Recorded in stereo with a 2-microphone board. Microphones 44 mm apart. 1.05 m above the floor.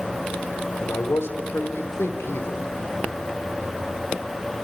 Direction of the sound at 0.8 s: 75° left (ahead or behind).